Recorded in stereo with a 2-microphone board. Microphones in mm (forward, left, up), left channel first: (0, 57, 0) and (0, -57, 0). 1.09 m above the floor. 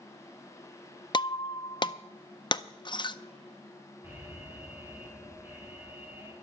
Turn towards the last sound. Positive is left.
turn(degrees=-20)  # may be behind; listen again after turning